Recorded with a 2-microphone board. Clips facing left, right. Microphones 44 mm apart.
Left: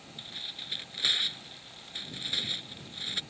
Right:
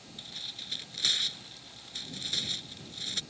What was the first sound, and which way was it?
Tearing paper, 20° left (ahead or behind).